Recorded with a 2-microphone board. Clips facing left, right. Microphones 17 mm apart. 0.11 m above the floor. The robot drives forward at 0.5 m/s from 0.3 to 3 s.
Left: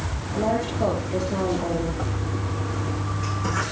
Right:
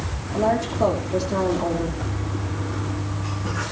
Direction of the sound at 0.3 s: 15° right (ahead or behind).